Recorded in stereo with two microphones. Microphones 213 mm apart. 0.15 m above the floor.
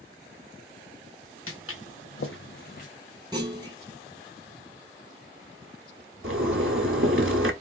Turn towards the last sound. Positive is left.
turn(degrees=-70)  # may be behind; listen again after turning